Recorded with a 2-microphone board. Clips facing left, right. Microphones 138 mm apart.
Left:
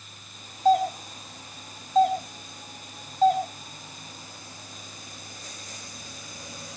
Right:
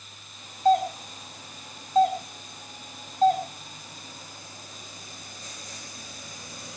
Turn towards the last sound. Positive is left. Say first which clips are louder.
# even
turn(degrees=0)  # may be behind; listen again after turning